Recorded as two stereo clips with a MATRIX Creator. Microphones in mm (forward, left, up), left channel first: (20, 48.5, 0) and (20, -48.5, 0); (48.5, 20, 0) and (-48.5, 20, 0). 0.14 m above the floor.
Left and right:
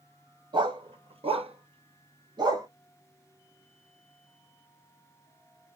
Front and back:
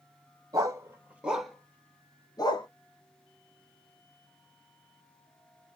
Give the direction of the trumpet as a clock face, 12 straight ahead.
No trumpet in this recording.